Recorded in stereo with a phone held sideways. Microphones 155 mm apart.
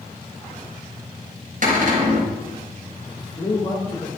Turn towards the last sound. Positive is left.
turn(degrees=40)  # may be behind; listen again after turning